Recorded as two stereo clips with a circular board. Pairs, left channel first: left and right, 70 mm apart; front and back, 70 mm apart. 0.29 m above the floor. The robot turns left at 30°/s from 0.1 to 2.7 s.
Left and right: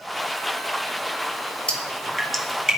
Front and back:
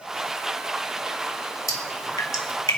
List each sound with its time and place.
1.7 s dripping: 20° left, 2.5 m; by 2.8 s 10° right, 2.5 m